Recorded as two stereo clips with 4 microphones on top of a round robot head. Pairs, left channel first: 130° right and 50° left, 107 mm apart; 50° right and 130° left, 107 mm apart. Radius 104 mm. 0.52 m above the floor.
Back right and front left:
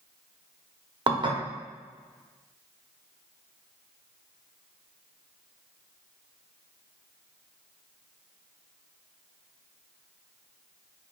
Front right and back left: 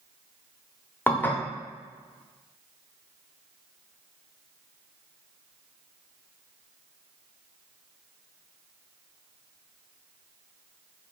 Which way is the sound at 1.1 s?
20° left.